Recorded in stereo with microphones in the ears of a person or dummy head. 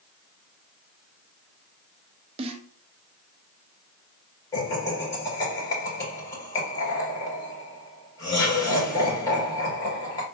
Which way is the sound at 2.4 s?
35° right (ahead or behind).